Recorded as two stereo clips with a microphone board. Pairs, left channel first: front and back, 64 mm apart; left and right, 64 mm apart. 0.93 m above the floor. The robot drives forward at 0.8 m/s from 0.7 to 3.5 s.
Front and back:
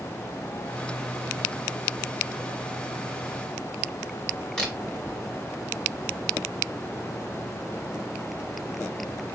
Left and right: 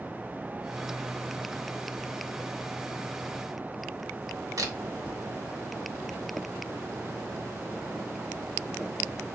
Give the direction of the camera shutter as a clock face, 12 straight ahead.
3 o'clock.